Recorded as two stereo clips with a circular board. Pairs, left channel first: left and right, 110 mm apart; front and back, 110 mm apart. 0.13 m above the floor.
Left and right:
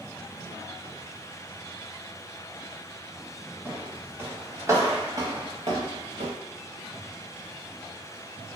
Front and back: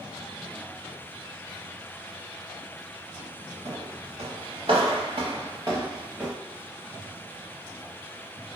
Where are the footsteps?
165° right, 1.8 m; by 6.3 s 90° right, 0.8 m.